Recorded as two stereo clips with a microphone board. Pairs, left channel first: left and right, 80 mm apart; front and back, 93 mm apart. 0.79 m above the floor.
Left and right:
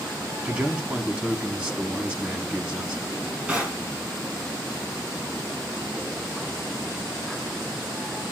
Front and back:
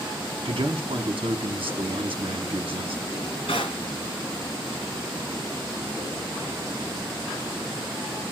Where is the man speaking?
160° right, 1.2 m.